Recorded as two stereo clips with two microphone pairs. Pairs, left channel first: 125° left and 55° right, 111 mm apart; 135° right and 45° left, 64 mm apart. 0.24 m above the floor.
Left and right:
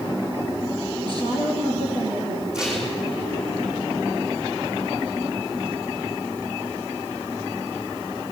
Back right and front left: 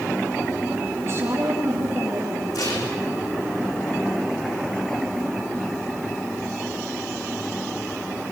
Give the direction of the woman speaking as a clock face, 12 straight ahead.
12 o'clock.